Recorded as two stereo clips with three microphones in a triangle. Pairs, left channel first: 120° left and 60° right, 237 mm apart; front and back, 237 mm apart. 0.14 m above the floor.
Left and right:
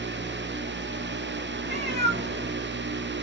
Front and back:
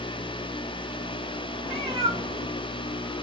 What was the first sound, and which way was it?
A cat meowing, 105° right.